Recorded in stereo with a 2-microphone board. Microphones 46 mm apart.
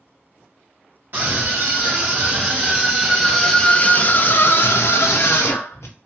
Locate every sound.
1.1 s a scream: 40° right (ahead or behind), 1.5 m; by 5.9 s 85° left, 1.3 m